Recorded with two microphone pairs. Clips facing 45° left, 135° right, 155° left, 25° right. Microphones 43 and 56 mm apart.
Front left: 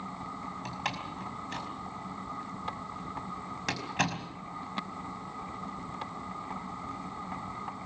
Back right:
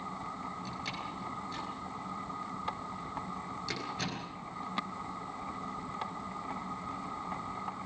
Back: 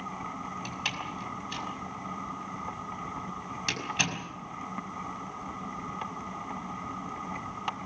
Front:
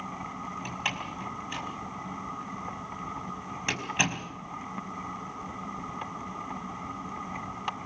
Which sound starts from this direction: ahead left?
A door slam, at 0.7 s.